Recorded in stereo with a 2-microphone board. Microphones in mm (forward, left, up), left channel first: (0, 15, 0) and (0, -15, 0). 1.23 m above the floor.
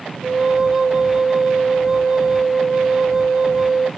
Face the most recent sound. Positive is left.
turn(degrees=-5)  # may be behind; listen again after turning